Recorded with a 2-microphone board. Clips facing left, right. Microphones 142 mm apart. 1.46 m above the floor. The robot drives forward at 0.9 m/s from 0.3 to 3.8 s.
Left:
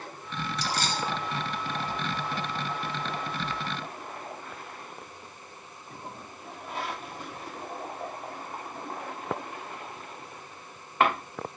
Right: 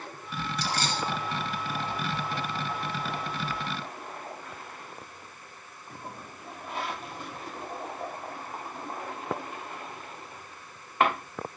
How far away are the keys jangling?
About 5 m.